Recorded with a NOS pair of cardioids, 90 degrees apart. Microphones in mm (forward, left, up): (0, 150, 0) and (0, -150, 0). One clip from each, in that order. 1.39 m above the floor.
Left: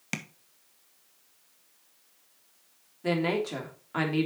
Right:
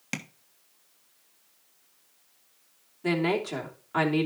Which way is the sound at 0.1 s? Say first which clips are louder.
Even; straight ahead.